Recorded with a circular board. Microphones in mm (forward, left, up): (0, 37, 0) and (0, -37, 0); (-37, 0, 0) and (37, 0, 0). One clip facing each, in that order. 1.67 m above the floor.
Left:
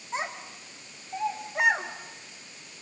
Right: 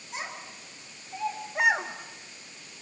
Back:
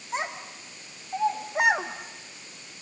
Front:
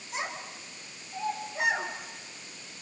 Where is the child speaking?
140° left, 3 m; by 2.7 s 110° right, 1.6 m.